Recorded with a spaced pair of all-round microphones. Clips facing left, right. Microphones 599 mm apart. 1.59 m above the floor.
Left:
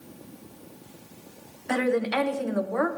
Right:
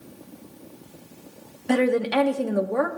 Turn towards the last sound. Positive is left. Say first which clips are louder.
# right 4 dB
turn(degrees=-60)  # may be behind; listen again after turning